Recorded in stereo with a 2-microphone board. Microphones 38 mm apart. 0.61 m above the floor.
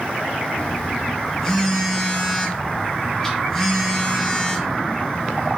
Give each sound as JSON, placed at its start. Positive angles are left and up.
{"t": 0.6, "sound": "a phone buzzing", "side_deg": 15, "distance_m": 0.8}